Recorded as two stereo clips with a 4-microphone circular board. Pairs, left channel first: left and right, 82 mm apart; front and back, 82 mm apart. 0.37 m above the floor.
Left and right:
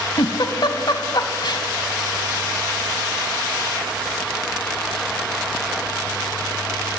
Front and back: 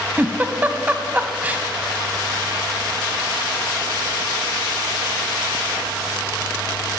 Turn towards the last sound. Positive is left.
turn(degrees=110)